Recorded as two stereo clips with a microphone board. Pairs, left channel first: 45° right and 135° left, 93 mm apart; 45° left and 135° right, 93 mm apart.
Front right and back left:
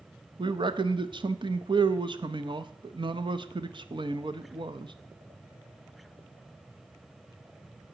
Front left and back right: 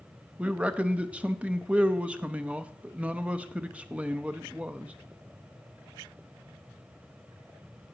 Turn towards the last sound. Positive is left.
turn(degrees=150)